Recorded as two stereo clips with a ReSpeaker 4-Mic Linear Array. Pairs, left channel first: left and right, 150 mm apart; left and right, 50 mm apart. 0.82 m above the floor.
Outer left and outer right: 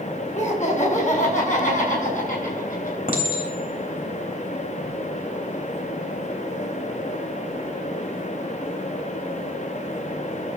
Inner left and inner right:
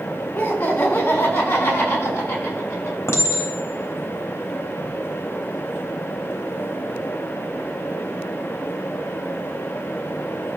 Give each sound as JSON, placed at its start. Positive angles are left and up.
{"t": 0.3, "sound": "laughter", "side_deg": 50, "distance_m": 5.5}
{"t": 3.1, "sound": "a clink", "side_deg": 80, "distance_m": 3.0}